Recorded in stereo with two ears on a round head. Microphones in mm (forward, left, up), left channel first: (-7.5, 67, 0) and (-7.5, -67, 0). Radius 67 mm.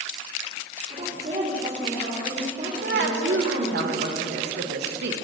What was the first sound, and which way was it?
A woman speaking, 45° right (ahead or behind).